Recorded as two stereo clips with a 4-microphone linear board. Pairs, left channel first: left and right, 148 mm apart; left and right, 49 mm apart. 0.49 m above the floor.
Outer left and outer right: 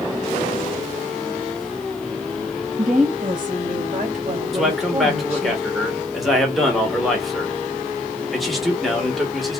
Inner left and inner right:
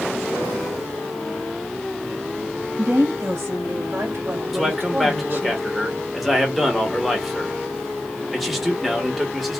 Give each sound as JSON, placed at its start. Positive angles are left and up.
{"t": 2.8, "sound": "a woman speaking", "side_deg": -65, "distance_m": 2.5}
{"t": 4.5, "sound": "a man speaking", "side_deg": 0, "distance_m": 1.3}